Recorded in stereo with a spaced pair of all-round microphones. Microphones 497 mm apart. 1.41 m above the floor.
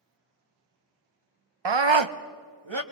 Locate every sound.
1.6 s a scream: 55° right (ahead or behind), 0.6 m; by 2.8 s 65° right (ahead or behind), 2.0 m